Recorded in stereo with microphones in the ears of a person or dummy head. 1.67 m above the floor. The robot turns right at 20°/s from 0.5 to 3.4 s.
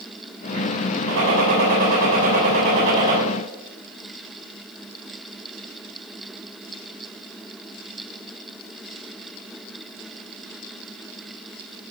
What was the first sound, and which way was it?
A gunshot, 110° right.